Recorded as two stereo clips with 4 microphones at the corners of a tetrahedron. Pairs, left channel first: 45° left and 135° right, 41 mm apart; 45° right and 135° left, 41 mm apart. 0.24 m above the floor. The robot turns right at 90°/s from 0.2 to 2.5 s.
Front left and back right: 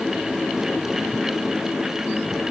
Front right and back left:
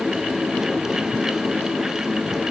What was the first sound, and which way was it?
Only background noise.